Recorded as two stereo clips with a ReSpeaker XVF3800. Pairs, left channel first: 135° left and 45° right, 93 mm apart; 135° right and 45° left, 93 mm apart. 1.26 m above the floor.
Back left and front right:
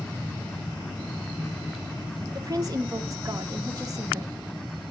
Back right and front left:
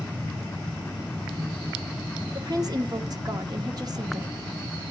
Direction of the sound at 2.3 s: 5° left.